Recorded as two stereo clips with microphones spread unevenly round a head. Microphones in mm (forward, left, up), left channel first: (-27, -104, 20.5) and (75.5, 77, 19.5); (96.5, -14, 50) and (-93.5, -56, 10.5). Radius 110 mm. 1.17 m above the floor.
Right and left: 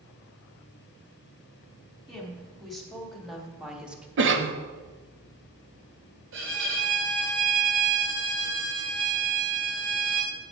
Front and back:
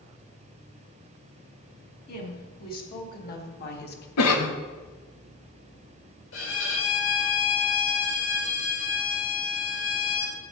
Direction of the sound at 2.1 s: 30° right.